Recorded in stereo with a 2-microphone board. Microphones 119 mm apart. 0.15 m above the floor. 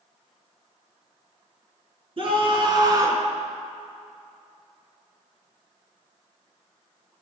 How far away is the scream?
About 2.5 m.